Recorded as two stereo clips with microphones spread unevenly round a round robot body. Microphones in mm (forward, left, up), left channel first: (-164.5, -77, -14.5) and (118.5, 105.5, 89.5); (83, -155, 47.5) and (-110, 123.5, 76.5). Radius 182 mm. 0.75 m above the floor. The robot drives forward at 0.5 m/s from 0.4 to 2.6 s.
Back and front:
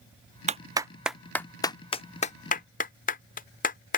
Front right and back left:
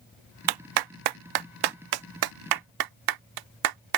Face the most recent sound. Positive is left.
turn(degrees=150)